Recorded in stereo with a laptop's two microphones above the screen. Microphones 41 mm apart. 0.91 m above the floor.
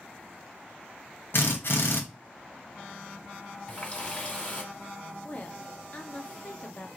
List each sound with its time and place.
1.3 s a drill: 60° left (ahead or behind), 1.0 m
3.7 s a running tap: 30° left (ahead or behind), 1.7 m
5.2 s a woman speaking: 35° left (ahead or behind), 0.6 m